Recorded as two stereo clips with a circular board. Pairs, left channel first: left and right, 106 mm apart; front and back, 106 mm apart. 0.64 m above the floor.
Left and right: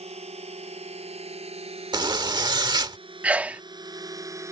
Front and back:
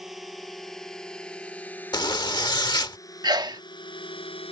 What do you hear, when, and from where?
0.0 s a drone: 90° right; by 4.5 s 30° right
1.9 s a zipper: 45° right
3.2 s a sneeze: 160° right